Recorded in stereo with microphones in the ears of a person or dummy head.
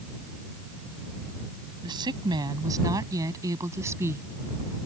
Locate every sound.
1.8 s a woman speaking: 25° right (ahead or behind); by 4.2 s 15° right (ahead or behind)